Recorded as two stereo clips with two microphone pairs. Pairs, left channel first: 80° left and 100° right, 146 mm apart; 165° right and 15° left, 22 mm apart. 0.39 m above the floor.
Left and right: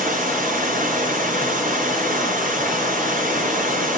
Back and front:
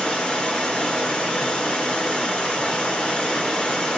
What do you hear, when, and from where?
0.0 s running water: 120° right, 3.5 m